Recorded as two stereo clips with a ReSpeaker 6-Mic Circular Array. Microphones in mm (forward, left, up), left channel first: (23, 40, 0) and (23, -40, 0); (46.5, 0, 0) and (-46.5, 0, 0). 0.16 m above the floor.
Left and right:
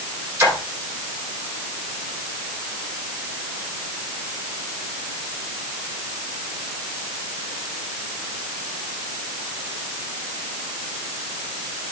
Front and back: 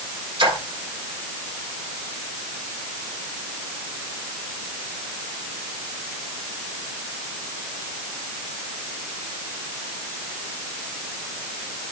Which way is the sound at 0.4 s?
145° right.